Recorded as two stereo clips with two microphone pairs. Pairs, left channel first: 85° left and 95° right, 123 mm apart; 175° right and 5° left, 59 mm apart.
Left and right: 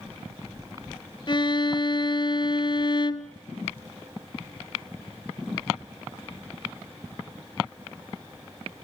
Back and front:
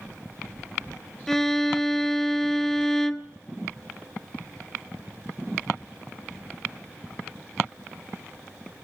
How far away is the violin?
About 0.8 m.